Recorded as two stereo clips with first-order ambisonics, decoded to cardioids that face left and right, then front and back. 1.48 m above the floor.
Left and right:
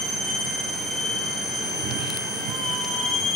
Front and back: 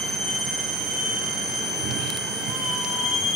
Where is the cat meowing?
135° right; by 3.3 s 125° right.